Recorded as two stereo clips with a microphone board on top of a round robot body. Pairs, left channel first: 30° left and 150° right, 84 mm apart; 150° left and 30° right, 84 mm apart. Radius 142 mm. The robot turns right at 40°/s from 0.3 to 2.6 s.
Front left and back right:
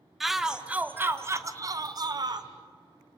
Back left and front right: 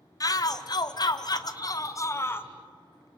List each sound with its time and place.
0.2 s a shout: 125° left, 1.3 m; by 2.5 s 150° right, 1.3 m